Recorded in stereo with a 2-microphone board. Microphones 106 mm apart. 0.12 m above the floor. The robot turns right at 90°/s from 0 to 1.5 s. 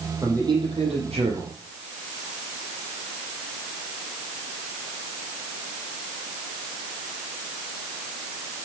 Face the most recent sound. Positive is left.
turn(degrees=-45)